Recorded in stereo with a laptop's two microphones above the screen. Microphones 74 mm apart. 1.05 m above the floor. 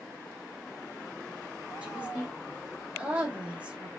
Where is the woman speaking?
15° right (ahead or behind), 1.0 m.